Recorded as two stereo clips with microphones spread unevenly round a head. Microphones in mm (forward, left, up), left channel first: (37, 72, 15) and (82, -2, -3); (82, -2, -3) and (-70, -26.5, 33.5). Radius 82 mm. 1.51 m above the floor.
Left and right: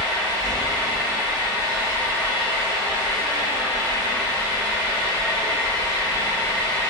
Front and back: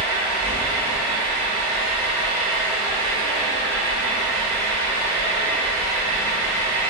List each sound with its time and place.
0.0 s an engine running: 85° right, 1.4 m